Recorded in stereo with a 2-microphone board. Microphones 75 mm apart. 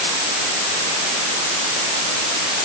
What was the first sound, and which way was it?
Only background noise.